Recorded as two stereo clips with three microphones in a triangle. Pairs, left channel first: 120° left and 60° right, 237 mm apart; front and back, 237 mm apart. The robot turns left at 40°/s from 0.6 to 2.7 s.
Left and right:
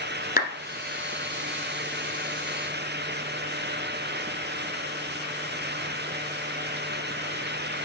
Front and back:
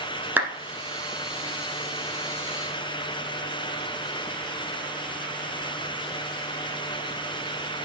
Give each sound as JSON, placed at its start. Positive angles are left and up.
{"t": 0.4, "sound": "a clap", "azimuth_deg": 100, "distance_m": 1.3}